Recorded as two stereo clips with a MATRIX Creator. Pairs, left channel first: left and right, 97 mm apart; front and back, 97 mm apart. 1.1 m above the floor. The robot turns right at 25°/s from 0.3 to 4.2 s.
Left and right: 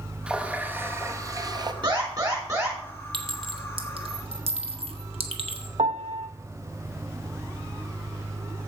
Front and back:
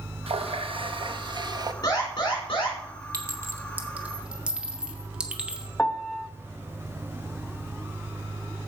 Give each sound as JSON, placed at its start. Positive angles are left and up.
{"t": 0.3, "sound": "a running tap", "azimuth_deg": -170, "distance_m": 0.8}
{"t": 1.8, "sound": "an alarm", "azimuth_deg": -50, "distance_m": 4.0}
{"t": 3.1, "sound": "a clink", "azimuth_deg": -125, "distance_m": 1.0}
{"t": 5.8, "sound": "a piano", "azimuth_deg": -80, "distance_m": 0.8}